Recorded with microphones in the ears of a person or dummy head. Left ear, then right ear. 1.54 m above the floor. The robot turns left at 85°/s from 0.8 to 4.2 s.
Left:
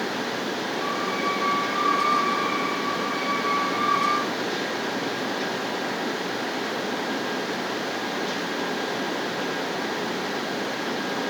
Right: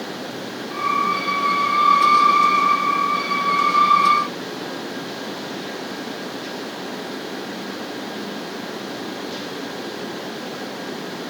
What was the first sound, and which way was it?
Only background noise.